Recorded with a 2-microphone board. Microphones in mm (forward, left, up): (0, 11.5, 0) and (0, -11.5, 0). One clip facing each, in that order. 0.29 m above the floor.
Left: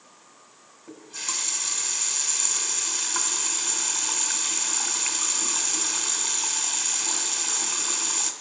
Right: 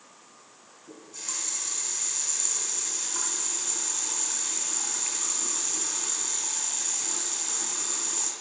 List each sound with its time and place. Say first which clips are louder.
0.9 s a running tap: left 6 dB; 40° left (ahead or behind), 1.7 m